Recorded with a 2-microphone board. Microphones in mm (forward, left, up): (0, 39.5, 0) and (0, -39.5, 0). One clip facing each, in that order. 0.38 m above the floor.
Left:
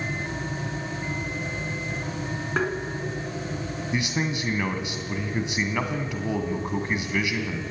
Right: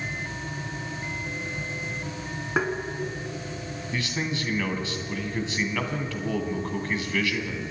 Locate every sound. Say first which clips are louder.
2.6 s tapping: even; 10° right (ahead or behind), 2.5 m
3.9 s a man speaking: left 2 dB; 20° left (ahead or behind), 2.5 m